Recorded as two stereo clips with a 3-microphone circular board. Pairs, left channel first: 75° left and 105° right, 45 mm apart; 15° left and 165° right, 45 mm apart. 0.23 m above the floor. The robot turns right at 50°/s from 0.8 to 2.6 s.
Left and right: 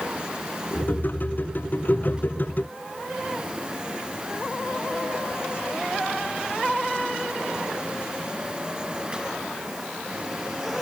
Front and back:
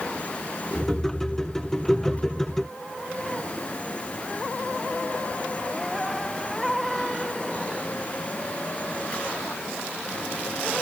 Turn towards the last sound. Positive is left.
No sound to turn to.